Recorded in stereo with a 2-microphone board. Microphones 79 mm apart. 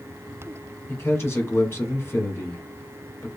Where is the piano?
I don't hear a piano.